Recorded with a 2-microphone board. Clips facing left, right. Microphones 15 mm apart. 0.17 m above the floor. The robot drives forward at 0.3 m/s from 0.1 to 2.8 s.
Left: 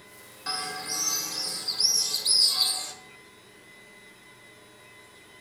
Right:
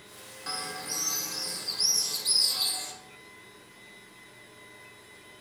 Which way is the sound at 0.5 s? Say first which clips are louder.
Left 3 dB; 15° left (ahead or behind).